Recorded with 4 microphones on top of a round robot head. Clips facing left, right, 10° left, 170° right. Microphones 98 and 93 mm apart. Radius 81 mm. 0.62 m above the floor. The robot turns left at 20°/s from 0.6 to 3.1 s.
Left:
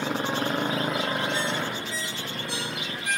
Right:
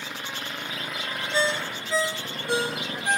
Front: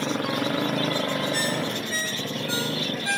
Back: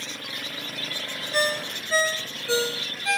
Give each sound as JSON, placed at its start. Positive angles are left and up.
{"t": 0.0, "sound": "a motorcycle", "azimuth_deg": 35}
{"t": 1.3, "sound": "a ringtone", "azimuth_deg": -120}